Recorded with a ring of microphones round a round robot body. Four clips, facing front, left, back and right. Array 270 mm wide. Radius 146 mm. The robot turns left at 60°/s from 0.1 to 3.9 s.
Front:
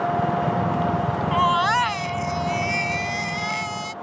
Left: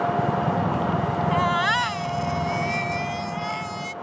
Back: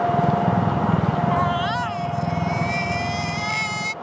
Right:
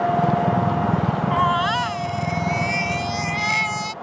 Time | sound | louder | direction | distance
1.3 | a baby crying | right 3 dB, front 2 dB | 40° left | ?